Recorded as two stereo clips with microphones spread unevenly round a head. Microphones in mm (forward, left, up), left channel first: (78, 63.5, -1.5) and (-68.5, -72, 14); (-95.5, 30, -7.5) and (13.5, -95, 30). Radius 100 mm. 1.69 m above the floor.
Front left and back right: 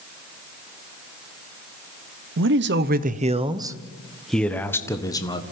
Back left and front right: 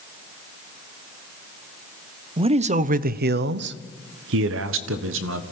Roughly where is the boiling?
I don't hear boiling.